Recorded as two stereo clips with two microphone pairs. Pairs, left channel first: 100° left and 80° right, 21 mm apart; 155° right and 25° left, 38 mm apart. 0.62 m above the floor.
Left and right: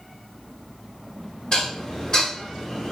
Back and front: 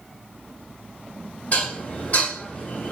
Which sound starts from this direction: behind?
Dishes clattering, at 1.5 s.